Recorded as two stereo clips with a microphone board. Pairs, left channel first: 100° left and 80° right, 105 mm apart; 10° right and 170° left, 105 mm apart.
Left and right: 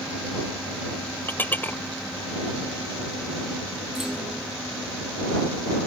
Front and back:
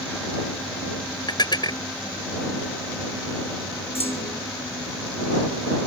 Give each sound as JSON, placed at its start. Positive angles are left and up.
{"t": 1.3, "sound": "dishes clattering", "azimuth_deg": 30}
{"t": 4.0, "sound": "a clunk", "azimuth_deg": 5}